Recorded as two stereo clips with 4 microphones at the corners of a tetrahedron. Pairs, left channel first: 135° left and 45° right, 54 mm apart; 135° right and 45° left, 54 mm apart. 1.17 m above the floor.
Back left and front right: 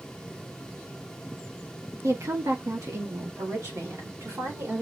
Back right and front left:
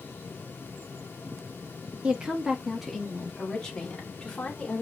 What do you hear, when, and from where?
2.0 s a woman speaking: 25° right, 1.0 m; by 4.8 s 60° right, 2.5 m